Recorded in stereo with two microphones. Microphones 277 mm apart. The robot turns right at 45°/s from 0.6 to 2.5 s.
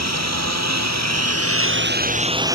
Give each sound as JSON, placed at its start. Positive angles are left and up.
{"t": 0.0, "sound": "a lawn mower", "side_deg": -80}